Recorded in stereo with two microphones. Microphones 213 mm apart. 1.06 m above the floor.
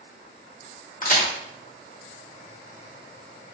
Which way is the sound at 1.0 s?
40° left (ahead or behind).